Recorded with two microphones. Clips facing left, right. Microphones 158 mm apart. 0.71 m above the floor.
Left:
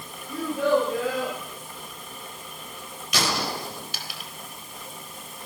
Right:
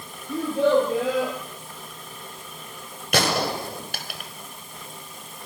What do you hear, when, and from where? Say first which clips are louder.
0.3 s a child speaking: right 3 dB; 30° right (ahead or behind), 8.5 m; by 1.4 s 20° right (ahead or behind), 9 m
3.1 s a gunshot: right 5 dB; 60° right (ahead or behind), 4 m